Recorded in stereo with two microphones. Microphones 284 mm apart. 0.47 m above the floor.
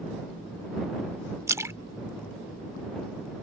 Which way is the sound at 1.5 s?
10° right (ahead or behind).